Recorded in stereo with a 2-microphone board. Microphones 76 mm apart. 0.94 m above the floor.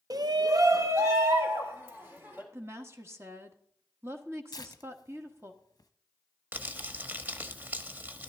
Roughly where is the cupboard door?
I don't hear a cupboard door.